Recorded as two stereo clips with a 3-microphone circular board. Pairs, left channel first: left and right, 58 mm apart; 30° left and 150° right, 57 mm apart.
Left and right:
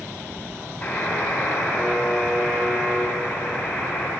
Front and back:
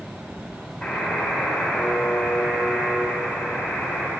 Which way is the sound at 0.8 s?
75° left.